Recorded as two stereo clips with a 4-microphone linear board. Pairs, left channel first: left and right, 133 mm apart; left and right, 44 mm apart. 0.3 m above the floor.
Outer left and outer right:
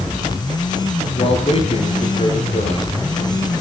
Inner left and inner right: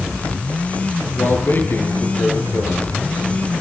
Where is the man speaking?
45° left (ahead or behind), 7 m.